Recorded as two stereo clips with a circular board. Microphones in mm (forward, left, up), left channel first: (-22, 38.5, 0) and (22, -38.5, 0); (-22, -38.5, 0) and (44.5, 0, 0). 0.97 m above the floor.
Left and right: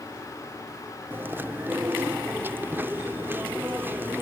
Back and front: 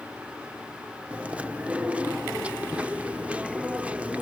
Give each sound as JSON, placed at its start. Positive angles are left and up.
{"t": 1.1, "sound": "chewing", "azimuth_deg": -25, "distance_m": 0.6}